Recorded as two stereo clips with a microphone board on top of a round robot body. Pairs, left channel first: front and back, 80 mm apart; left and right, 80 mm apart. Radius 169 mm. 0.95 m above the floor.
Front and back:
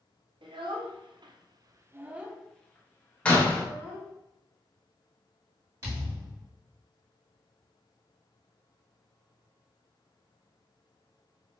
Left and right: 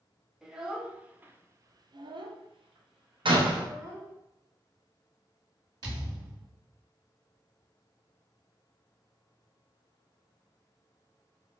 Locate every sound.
0.4 s a child speaking: 175° right, 1.0 m; by 4.1 s 45° right, 1.2 m
3.2 s a door slam: 75° right, 1.0 m
5.8 s a thud: 125° right, 2 m